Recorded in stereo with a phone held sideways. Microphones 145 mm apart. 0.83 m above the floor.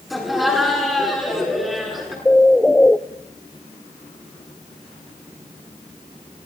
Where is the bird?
10° left (ahead or behind), 0.8 m.